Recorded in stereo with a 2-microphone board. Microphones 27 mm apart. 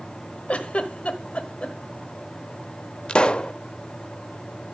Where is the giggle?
50° left (ahead or behind), 1.3 m.